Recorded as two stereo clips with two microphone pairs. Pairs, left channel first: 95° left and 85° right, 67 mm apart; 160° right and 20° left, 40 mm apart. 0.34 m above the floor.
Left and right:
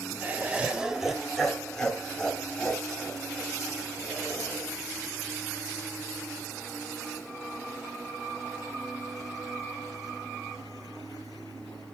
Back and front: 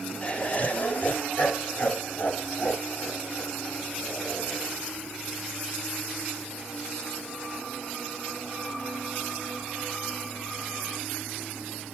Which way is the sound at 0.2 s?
125° right.